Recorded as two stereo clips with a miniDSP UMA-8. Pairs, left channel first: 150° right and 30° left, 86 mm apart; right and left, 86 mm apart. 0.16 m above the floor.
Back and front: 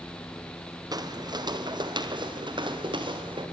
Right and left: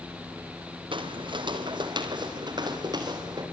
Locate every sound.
0.9 s footsteps: 70° left, 3 m; by 3.4 s 50° left, 6 m